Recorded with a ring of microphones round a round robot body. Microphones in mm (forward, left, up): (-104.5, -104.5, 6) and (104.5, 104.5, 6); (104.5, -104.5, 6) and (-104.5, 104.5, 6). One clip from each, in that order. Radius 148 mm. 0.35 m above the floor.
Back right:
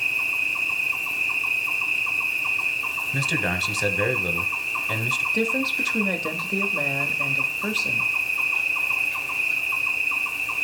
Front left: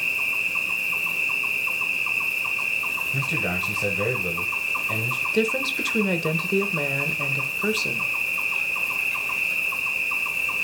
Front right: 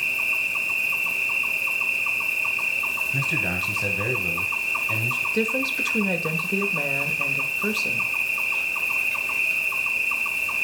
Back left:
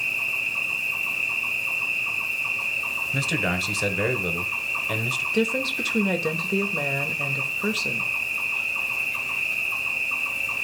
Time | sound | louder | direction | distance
0.0 | an insect | back right 1 dB, front right 2 dB | 15° right | 1.6 m
3.1 | a man speaking | back right 1 dB, front right 1 dB | 170° right | 1.2 m
5.3 | a woman speaking | even, front right 1 dB | 60° left | 0.9 m